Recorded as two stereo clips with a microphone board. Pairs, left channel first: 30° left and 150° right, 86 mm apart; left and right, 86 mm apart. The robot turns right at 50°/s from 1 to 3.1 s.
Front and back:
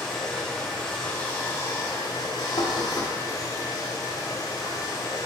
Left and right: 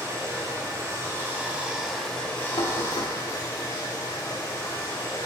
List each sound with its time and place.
0.0 s running water: 50° right, 0.8 m; by 5.3 s 55° left, 0.8 m
2.6 s knocking: 55° left, 0.5 m; by 3.1 s 85° left, 0.5 m